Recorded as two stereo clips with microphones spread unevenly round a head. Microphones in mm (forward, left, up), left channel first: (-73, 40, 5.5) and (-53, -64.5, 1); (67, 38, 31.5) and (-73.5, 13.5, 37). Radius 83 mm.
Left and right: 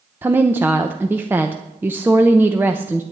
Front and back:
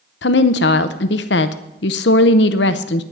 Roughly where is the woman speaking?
Ahead.